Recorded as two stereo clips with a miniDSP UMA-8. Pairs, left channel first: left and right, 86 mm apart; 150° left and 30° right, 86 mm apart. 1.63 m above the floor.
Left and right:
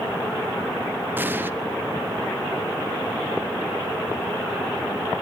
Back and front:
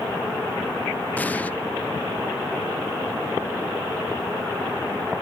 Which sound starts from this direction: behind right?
An explosion, at 1.2 s.